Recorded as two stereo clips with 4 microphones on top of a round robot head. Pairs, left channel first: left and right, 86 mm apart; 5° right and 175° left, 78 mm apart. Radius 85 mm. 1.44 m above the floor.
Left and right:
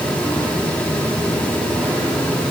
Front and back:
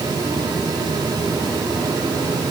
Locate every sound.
Only background noise.